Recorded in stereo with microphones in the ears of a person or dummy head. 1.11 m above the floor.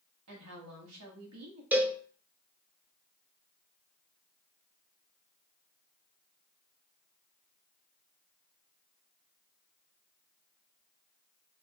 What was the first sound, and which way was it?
A woman speaking, 85° right.